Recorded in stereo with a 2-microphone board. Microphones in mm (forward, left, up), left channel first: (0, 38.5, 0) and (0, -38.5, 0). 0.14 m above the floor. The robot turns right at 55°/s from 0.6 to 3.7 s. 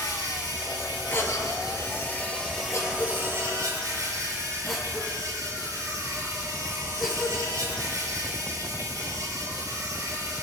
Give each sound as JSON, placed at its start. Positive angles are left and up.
{"t": 0.0, "sound": "an insect", "azimuth_deg": 70, "distance_m": 4.5}
{"t": 1.1, "sound": "a cough", "side_deg": 35, "distance_m": 3.0}